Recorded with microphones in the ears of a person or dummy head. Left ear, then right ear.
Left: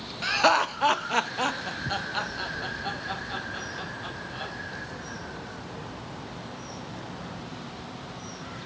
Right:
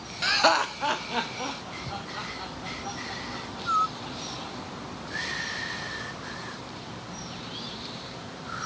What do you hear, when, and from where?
0.2 s laughter: 15° right (ahead or behind), 0.6 m; by 4.5 s 75° left (ahead or behind), 2 m